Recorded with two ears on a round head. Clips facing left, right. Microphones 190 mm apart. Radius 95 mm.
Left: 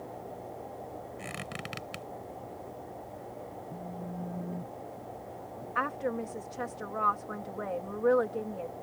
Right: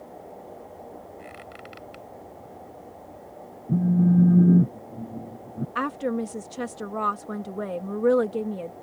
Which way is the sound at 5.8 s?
45° right (ahead or behind).